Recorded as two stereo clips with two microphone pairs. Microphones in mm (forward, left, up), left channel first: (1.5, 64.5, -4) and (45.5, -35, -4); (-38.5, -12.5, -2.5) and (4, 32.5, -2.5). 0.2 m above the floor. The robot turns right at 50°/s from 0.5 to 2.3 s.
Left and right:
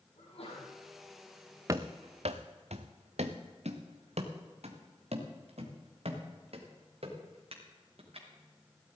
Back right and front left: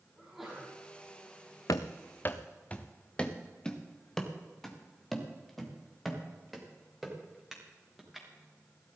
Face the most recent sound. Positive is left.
turn(degrees=-40)